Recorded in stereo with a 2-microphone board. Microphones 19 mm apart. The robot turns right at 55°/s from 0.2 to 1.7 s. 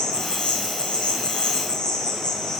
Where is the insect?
55° left, 2.5 m; by 2.6 s 135° left, 2.5 m.